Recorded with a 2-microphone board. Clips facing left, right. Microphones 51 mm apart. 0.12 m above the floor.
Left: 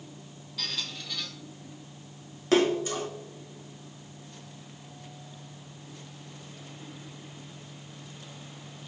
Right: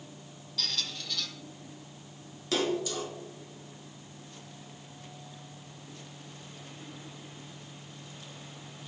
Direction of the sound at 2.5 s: 35° left (ahead or behind).